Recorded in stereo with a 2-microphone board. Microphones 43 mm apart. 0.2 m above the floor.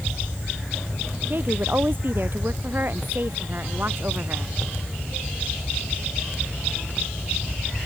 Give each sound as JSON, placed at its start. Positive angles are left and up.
{"t": 1.3, "sound": "a woman speaking", "side_deg": -50}